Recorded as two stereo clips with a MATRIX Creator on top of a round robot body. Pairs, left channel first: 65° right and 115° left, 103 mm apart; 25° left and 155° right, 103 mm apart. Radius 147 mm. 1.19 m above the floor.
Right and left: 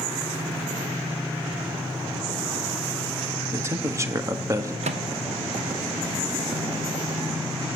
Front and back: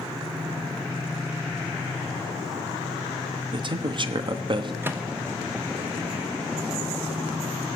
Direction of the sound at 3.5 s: 170° left.